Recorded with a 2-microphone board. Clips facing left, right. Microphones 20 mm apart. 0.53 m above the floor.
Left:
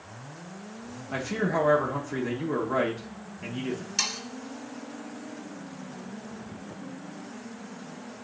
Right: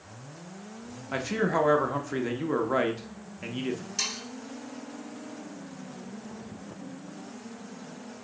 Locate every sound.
1.1 s a man speaking: 20° right (ahead or behind), 0.6 m
4.0 s sawing: 20° left (ahead or behind), 2 m